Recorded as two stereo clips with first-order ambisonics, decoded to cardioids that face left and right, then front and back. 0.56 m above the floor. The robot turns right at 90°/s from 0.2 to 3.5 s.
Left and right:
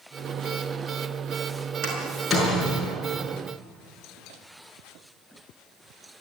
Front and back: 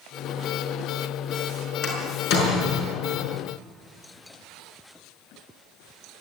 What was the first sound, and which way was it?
A door slam, 50° right.